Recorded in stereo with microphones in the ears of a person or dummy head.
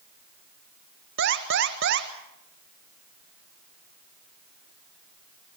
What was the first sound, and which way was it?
An alarm, 60° right (ahead or behind).